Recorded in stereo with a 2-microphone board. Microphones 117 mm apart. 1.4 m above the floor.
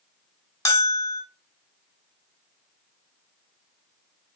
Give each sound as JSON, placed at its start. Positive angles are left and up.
{"t": 0.7, "sound": "a bell", "side_deg": 30, "distance_m": 1.3}